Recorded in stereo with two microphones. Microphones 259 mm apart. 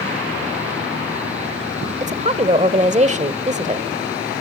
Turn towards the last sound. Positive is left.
turn(degrees=-30)  # may be behind; listen again after turning